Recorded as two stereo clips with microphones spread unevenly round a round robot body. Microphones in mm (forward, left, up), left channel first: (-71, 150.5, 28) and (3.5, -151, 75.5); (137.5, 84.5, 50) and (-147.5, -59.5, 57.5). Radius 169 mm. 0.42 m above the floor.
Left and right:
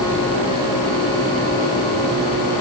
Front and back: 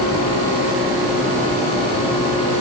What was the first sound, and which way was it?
Only background noise.